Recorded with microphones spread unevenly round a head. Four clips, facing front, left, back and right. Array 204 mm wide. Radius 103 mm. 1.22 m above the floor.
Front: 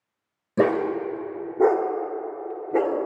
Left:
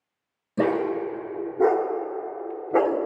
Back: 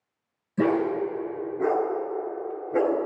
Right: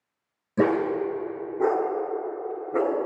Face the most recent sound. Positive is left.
turn(degrees=70)